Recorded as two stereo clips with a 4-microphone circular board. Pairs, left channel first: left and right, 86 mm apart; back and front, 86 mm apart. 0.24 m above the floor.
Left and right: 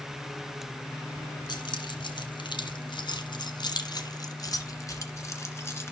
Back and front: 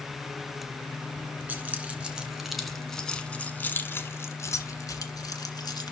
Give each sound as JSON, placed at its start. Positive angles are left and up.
{"t": 1.5, "sound": "keys jangling", "azimuth_deg": 70, "distance_m": 1.8}